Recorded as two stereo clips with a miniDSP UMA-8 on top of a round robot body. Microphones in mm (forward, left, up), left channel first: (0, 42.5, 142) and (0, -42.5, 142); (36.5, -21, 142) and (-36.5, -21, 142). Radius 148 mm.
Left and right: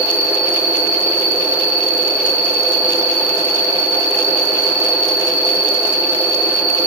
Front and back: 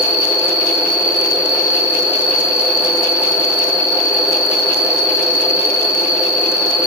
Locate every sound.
0.0 s an insect: 40° right, 5.5 m